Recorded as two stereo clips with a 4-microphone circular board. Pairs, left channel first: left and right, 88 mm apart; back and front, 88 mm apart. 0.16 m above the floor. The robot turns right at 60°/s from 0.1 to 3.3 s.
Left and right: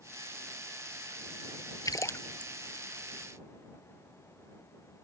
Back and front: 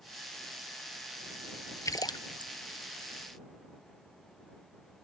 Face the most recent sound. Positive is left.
turn(degrees=-145)